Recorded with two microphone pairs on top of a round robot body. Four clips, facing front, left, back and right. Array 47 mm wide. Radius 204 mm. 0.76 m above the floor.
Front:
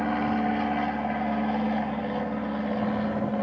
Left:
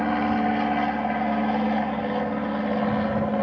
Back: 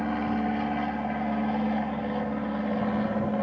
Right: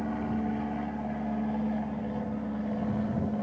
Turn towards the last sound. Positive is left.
turn(degrees=100)